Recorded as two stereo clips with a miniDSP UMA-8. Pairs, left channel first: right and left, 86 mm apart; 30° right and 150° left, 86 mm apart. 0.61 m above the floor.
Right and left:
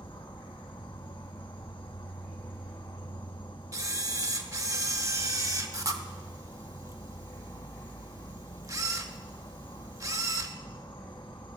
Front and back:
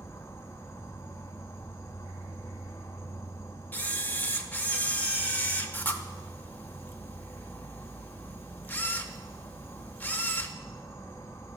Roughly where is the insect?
Right.